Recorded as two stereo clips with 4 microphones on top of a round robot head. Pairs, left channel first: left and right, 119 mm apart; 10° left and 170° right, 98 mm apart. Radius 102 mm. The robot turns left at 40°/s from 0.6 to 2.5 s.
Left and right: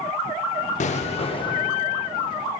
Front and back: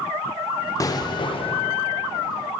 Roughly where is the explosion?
Ahead left.